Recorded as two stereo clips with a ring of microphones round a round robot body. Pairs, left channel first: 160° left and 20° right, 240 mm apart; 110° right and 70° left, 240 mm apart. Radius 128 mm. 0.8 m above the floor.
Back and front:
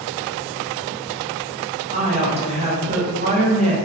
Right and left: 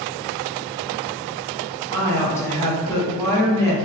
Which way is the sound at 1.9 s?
45° right.